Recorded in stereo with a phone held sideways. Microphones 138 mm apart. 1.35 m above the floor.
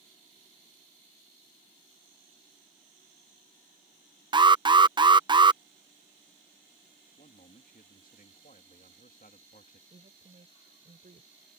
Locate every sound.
4.3 s an alarm: 30° right (ahead or behind)
7.2 s a man speaking: 75° left (ahead or behind)
9.9 s a woman speaking: 70° right (ahead or behind)